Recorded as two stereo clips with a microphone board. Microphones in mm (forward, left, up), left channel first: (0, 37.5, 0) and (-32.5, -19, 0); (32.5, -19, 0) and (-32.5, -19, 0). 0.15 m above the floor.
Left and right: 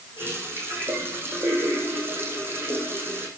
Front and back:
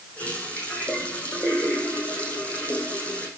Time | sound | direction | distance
0.2 | a running tap | 65° right | 5 m